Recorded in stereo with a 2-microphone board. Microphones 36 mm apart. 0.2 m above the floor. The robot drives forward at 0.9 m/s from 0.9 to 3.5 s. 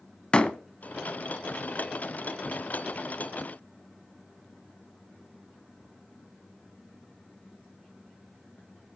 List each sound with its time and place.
0.3 s a door slam: 30° left (ahead or behind), 0.9 m